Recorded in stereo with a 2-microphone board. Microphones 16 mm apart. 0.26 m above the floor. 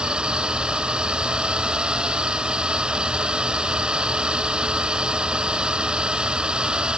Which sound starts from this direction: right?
A drone, at 0.0 s.